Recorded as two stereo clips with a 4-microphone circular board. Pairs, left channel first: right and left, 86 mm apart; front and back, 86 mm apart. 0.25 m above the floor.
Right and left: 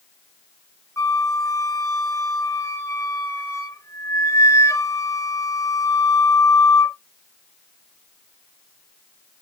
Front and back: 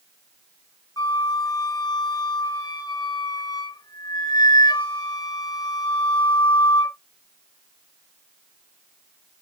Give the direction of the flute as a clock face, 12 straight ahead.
1 o'clock.